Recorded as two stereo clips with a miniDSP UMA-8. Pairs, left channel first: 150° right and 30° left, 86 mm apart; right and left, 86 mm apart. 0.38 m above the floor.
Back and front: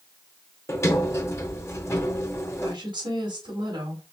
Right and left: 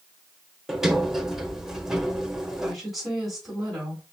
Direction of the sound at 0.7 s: 170° left.